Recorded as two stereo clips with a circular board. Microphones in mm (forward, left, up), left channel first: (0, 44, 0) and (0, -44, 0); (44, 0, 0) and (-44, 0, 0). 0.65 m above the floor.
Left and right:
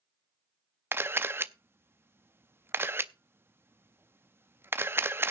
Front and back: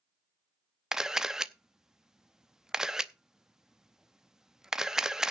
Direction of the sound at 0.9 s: 105° right.